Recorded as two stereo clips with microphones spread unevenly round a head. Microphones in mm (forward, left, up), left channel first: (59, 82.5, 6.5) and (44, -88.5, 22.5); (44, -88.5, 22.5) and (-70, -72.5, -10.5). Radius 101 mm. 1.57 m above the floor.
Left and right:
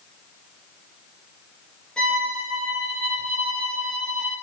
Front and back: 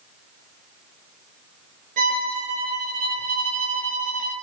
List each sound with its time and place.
2.0 s a violin: 170° left, 5.5 m